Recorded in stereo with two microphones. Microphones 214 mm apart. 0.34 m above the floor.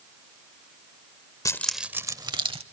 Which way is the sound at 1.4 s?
15° left (ahead or behind).